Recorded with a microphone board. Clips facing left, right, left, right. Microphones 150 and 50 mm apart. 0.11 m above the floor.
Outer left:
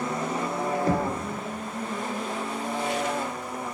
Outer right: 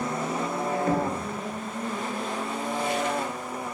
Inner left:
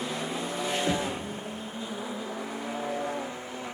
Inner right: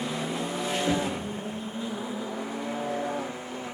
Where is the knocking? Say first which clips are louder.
Even, inner right 3 dB; 35° left (ahead or behind), 1.3 m.